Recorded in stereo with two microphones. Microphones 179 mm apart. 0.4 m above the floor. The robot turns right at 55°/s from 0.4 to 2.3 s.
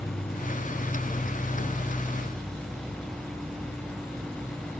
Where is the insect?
100° left, 3 m; by 4.8 s 155° right, 3 m.